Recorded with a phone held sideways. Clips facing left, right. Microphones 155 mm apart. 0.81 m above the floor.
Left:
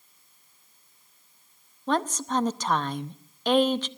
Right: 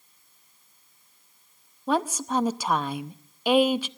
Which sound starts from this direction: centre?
A woman speaking, at 1.9 s.